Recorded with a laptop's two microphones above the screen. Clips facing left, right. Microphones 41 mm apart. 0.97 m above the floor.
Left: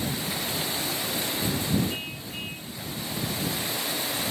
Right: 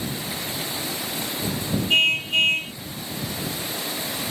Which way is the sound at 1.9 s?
85° right.